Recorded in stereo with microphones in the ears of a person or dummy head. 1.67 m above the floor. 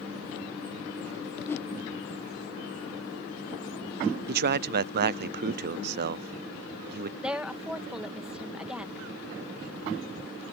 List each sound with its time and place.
1.5 s a whoosh: 15° left (ahead or behind)
4.3 s a man speaking: 55° right (ahead or behind)
7.2 s a woman speaking: 5° right (ahead or behind)